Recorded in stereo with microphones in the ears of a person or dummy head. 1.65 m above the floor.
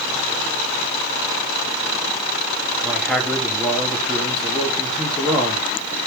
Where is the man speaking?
5° left (ahead or behind), 3 m.